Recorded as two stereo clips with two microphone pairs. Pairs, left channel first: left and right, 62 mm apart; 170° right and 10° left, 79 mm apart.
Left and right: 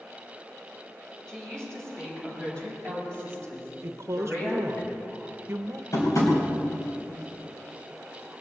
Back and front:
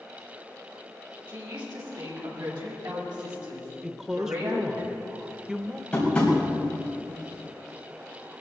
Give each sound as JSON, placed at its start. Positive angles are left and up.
{"t": 1.3, "sound": "a woman speaking", "azimuth_deg": 10, "distance_m": 6.5}
{"t": 3.8, "sound": "a woman speaking", "azimuth_deg": -70, "distance_m": 0.9}
{"t": 5.9, "sound": "tapping", "azimuth_deg": 115, "distance_m": 4.0}